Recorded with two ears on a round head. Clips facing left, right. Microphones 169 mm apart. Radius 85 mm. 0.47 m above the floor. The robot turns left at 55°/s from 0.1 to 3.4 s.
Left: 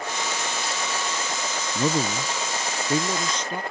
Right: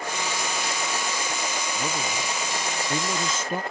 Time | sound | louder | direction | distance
1.8 | a man speaking | left 10 dB | 85° left | ?